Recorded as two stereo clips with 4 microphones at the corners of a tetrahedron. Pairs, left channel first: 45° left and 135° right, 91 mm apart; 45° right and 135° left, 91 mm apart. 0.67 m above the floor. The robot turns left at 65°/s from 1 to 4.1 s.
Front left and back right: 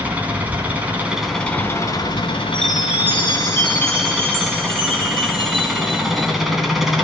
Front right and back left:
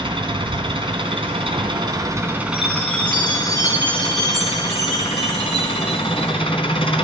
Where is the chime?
35° right, 2.5 m; by 6.3 s 135° right, 2.5 m.